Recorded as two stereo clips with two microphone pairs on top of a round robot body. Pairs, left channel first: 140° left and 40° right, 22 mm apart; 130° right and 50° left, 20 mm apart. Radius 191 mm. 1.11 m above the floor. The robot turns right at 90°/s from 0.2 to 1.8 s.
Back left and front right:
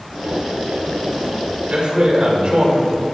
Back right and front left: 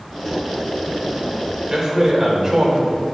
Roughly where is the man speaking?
Ahead right.